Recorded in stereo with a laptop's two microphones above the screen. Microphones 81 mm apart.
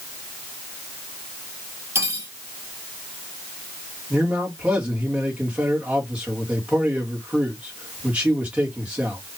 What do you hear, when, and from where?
1.9 s cutlery clinking: 35° right (ahead or behind), 1.6 m
4.1 s a man speaking: 15° right (ahead or behind), 1.9 m